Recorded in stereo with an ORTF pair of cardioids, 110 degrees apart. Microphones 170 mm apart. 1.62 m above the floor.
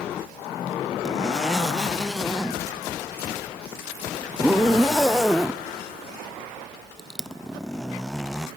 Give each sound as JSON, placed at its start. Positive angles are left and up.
{"t": 1.1, "sound": "a zipper", "azimuth_deg": 0, "distance_m": 0.7}